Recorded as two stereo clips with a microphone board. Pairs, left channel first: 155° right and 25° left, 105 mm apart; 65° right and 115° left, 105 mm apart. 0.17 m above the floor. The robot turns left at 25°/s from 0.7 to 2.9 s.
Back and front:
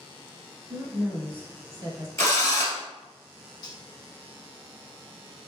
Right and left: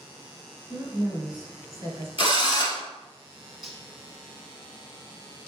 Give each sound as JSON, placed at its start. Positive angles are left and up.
{"t": 0.7, "sound": "a woman speaking", "azimuth_deg": 95, "distance_m": 1.4}
{"t": 2.2, "sound": "a drill", "azimuth_deg": -100, "distance_m": 1.3}
{"t": 3.6, "sound": "cutlery clinking", "azimuth_deg": -160, "distance_m": 0.9}